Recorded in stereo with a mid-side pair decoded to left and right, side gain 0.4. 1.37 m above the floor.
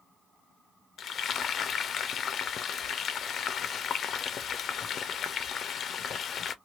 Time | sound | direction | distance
1.0 | frying | 60° left | 0.6 m